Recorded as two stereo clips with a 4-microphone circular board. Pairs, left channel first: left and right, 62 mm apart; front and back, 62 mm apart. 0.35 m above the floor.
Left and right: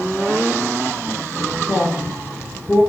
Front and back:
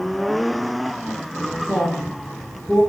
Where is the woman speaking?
125° right, 1.6 m; by 2.8 s 85° right, 1.8 m.